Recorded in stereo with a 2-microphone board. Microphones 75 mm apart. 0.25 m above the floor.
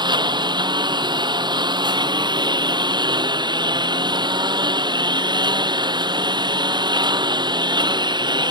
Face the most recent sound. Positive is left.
turn(degrees=-65)  # may be behind; listen again after turning